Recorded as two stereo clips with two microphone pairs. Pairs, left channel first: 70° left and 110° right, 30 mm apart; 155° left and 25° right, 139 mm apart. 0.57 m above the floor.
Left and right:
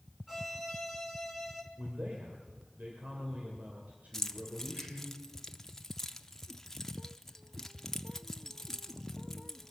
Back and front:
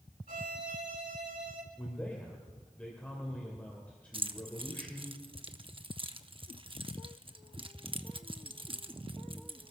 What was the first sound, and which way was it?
A violin, 30° right.